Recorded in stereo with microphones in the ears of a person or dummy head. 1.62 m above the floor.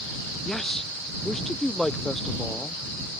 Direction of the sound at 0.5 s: 5° left (ahead or behind).